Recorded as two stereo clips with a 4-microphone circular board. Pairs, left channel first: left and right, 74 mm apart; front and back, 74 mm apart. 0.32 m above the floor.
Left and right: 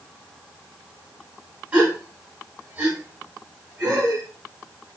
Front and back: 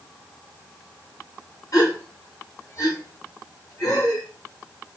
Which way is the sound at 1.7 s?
25° right.